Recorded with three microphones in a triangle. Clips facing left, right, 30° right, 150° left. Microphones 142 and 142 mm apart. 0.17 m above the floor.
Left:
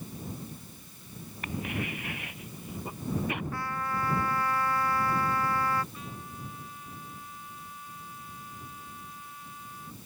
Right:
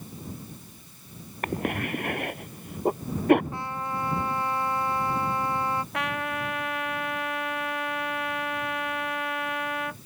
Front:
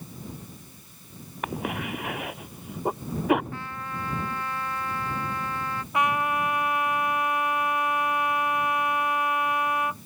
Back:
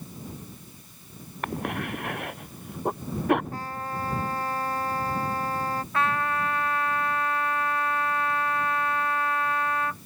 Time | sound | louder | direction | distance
1.4 | a cough | right 6 dB, even | 115° right | ?
3.5 | a trumpet | right 1 dB, back 3 dB | 160° right | ?
5.9 | a trumpet | right 13 dB, front 3 dB | 105° right | ?